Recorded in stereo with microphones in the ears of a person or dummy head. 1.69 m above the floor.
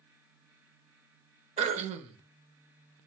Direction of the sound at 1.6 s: 35° right (ahead or behind).